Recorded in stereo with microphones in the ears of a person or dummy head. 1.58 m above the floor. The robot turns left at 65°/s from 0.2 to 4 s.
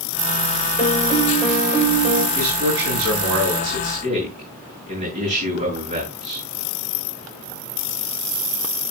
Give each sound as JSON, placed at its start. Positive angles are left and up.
{"t": 0.8, "sound": "a piano", "azimuth_deg": 50, "distance_m": 2.5}
{"t": 2.4, "sound": "a man speaking", "azimuth_deg": -45, "distance_m": 9.0}